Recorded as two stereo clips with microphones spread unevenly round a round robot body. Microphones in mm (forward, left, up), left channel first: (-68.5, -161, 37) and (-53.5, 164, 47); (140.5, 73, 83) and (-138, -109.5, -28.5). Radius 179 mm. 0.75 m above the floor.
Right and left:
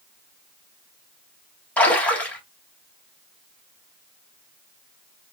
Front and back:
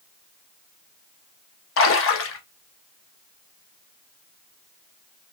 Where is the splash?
15° right, 1.0 m.